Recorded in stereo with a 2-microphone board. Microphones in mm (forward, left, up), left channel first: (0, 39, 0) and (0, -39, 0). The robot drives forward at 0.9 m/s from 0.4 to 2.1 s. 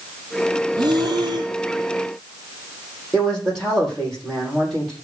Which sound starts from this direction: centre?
A man speaking, at 3.1 s.